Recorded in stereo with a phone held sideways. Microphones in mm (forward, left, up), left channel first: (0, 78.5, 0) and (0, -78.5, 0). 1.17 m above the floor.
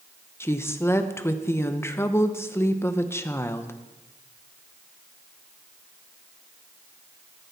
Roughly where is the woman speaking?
Centre.